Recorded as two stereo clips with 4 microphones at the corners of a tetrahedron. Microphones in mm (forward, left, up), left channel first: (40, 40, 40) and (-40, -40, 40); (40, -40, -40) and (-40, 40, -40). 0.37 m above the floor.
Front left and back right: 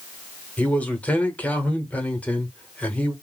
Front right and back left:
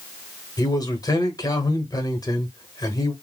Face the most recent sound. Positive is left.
turn(degrees=-25)